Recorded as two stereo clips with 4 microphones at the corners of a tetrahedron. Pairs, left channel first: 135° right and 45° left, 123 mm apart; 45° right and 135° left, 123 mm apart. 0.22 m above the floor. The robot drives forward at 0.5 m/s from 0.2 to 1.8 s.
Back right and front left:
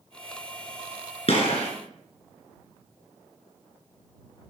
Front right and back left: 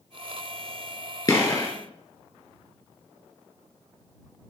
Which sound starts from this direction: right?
A gunshot, at 1.3 s.